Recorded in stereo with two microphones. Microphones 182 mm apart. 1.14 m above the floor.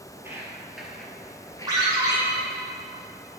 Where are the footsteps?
15° right (ahead or behind), 1.6 m; by 2.5 s 30° left (ahead or behind), 1.7 m.